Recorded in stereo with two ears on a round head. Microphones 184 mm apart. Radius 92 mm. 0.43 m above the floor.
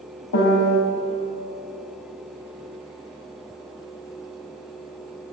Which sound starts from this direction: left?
A piano, at 0.3 s.